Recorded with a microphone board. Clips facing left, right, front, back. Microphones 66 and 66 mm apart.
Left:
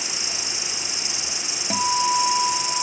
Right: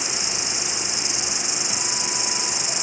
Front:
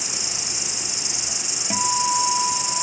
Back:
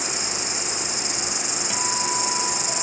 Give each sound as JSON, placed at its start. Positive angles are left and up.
{"t": 0.0, "sound": "an insect", "azimuth_deg": 145}
{"t": 1.7, "sound": "a guitar", "azimuth_deg": 65}